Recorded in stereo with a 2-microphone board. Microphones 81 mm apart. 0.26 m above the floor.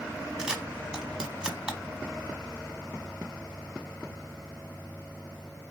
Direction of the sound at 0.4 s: 10° right (ahead or behind).